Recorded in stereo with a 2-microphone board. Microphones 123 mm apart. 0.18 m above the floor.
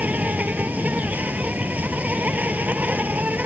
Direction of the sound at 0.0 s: 15° right (ahead or behind).